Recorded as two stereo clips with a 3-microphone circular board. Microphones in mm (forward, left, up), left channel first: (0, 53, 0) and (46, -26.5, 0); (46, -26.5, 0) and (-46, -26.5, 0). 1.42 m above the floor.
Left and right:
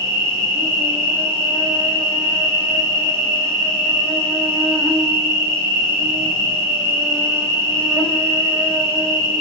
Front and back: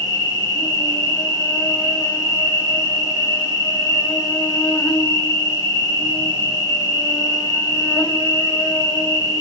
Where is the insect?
40° left, 0.9 m.